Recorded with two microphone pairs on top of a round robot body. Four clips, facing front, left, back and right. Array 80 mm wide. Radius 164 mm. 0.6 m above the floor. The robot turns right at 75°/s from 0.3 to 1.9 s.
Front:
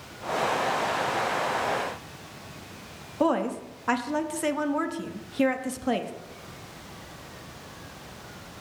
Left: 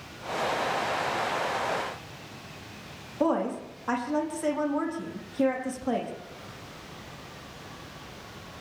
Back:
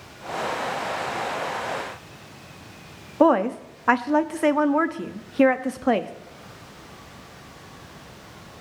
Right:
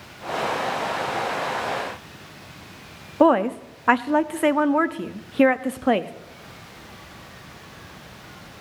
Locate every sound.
3.2 s a woman speaking: 130° right, 1.0 m